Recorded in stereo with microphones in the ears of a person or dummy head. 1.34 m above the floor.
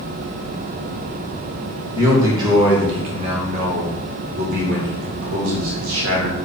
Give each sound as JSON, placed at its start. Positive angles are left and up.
{"t": 1.9, "sound": "a man speaking", "side_deg": -15, "distance_m": 2.0}